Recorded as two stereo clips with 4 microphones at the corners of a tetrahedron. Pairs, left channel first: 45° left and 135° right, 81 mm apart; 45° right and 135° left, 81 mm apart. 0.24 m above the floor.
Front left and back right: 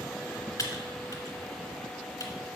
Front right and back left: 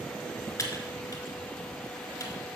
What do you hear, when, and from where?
0.6 s typing on a keyboard: 5° left, 1.2 m